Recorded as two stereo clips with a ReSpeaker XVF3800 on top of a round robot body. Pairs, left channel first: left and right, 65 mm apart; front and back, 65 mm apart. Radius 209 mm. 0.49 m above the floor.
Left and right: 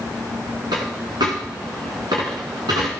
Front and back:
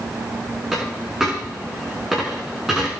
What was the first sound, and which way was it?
A dropped coin, 95° right.